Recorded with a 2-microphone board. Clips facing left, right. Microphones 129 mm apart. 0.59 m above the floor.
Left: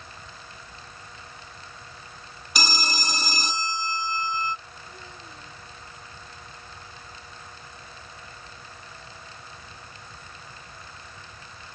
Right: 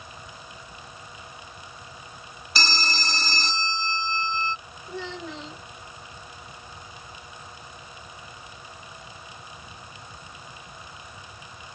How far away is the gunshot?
No gunshot in this recording.